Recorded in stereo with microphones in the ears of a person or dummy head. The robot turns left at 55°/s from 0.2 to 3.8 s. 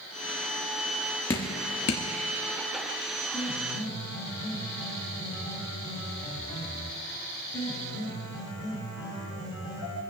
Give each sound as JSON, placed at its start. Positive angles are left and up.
{"t": 1.3, "sound": "dripping", "side_deg": 15, "distance_m": 1.1}
{"t": 3.3, "sound": "a piano", "side_deg": 15, "distance_m": 2.0}